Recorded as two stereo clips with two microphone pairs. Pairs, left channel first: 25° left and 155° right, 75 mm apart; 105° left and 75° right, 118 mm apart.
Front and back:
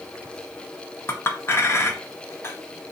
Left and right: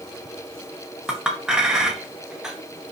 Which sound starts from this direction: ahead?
A clink, at 1.1 s.